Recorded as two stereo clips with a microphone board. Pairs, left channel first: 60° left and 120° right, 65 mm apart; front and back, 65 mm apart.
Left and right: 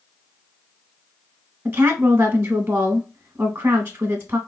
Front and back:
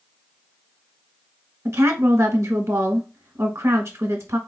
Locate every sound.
1.6 s a woman speaking: 165° right, 0.8 m